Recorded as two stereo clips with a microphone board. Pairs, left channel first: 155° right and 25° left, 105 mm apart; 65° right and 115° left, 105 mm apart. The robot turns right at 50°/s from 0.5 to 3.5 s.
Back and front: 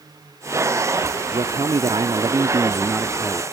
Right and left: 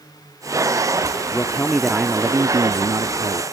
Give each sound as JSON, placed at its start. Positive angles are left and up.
{"t": 1.3, "sound": "a man speaking", "azimuth_deg": 0}